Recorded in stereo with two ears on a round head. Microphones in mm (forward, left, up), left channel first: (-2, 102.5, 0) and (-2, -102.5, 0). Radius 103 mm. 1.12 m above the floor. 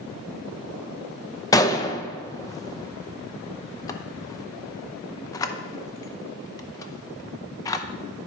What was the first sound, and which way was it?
A gunshot, 15° left (ahead or behind).